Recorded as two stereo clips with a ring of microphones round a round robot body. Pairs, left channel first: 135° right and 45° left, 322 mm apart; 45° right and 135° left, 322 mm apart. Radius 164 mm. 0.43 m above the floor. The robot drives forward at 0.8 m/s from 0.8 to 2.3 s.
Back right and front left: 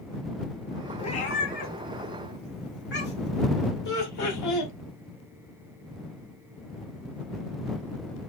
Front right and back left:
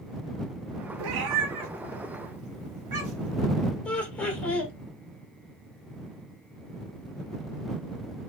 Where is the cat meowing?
150° left, 0.8 m; by 3.4 s 165° left, 1.8 m.